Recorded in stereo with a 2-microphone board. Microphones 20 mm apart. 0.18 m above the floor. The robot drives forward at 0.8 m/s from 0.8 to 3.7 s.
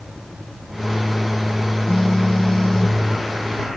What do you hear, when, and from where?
1.9 s a phone buzzing: 55° left (ahead or behind); by 3.0 s 45° left (ahead or behind)